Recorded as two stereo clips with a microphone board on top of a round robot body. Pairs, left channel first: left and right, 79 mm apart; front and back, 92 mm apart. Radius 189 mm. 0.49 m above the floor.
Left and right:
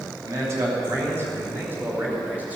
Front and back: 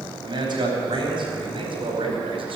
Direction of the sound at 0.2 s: 145° right.